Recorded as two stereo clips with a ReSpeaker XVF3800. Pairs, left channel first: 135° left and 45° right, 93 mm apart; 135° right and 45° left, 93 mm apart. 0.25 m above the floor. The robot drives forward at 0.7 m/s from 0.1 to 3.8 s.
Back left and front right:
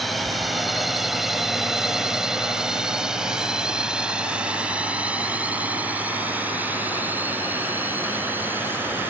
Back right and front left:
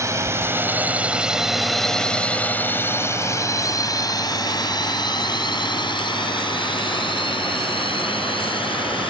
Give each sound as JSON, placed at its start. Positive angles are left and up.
{"t": 0.0, "sound": "a drone", "azimuth_deg": 45}